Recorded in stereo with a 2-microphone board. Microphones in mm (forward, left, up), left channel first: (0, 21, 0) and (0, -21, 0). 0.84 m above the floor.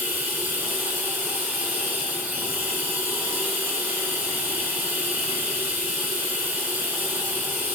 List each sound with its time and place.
0.0 s running water: 45° right (ahead or behind), 2.5 m